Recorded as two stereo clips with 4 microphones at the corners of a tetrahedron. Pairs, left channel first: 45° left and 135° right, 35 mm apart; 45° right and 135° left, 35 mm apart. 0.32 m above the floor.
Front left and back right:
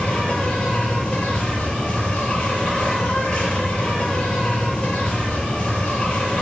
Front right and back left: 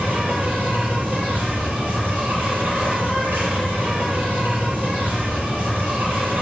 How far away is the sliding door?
I don't hear a sliding door.